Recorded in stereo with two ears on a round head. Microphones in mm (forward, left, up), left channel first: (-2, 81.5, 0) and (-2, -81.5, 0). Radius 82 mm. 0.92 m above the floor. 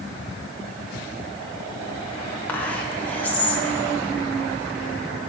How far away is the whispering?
About 1.2 m.